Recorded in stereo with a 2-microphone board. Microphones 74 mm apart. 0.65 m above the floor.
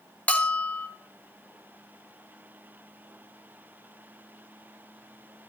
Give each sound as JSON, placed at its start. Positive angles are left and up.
{"t": 0.3, "sound": "a bell", "side_deg": 20, "distance_m": 0.9}